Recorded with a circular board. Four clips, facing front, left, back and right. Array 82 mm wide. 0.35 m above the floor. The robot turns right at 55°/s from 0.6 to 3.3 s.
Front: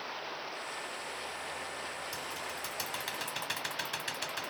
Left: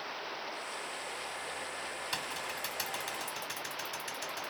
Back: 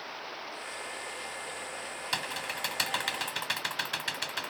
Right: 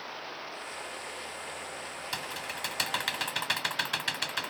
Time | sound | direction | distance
2.1 | typing on a keyboard | 175° right | ?